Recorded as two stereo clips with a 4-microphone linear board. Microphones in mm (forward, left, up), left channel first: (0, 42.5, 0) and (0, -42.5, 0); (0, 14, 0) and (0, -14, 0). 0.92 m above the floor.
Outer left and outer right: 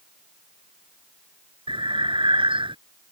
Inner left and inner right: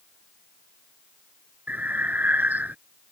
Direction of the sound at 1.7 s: 85° right.